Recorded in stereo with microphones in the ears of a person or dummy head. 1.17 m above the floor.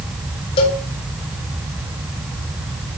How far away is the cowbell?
About 7 m.